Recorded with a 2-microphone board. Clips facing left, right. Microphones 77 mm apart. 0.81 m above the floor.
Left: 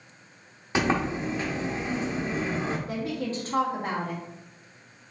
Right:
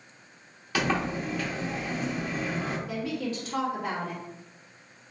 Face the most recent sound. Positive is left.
turn(degrees=35)  # may be behind; listen again after turning